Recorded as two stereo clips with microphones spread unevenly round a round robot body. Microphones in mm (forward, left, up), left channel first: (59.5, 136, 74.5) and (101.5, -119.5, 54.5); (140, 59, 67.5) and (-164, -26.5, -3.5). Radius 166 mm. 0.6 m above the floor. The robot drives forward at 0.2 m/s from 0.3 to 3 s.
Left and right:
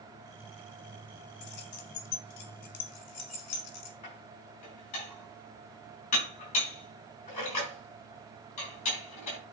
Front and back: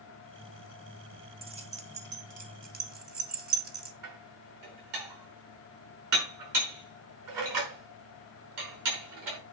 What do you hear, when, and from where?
1.4 s keys jangling: 125° left, 1.1 m; by 3.9 s 135° left, 1.3 m
4.0 s dishes clattering: 170° left, 5 m